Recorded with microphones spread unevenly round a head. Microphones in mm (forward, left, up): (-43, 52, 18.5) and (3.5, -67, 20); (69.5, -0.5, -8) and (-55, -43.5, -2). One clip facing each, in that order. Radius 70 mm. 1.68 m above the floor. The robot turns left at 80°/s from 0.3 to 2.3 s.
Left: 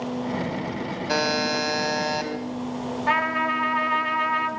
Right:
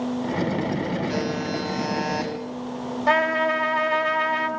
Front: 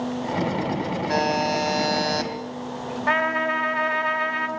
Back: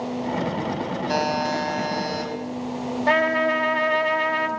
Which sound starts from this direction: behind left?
A buzzer, at 1.1 s.